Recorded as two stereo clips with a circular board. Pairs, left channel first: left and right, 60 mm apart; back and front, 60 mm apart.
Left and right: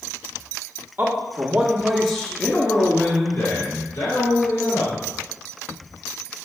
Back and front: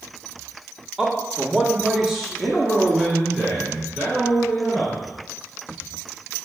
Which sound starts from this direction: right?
A man speaking, at 1.0 s.